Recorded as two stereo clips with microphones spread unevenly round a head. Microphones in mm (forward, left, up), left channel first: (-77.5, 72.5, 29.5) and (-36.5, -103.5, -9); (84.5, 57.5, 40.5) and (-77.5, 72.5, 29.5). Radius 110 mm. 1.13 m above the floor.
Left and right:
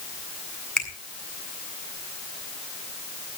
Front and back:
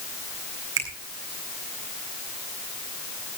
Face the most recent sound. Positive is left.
turn(degrees=-170)